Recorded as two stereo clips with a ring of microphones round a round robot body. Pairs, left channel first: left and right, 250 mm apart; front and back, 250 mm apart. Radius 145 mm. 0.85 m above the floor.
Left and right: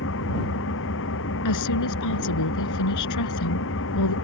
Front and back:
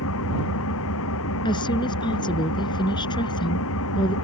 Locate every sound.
0.0 s an engine running: 40° left
1.4 s a woman speaking: 75° left